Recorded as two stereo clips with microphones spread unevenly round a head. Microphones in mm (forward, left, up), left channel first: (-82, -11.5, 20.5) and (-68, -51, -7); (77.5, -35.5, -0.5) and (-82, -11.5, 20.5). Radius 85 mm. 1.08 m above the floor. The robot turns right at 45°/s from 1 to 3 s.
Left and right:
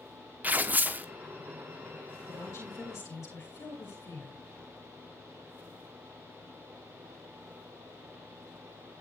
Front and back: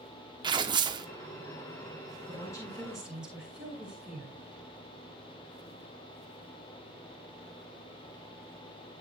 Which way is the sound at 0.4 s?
125° right.